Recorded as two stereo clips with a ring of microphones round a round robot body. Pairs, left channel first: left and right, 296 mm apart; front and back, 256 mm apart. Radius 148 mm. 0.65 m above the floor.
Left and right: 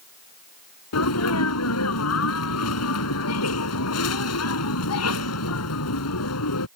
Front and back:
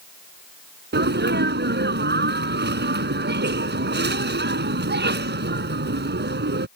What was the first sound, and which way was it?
A sneeze, 130° left.